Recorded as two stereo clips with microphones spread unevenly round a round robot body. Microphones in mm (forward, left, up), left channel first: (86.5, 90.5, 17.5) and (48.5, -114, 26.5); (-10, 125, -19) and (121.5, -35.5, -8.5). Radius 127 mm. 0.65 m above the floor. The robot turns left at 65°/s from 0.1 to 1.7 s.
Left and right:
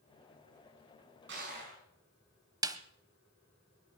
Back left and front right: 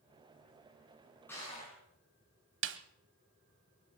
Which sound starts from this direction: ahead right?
A snare drum, at 2.6 s.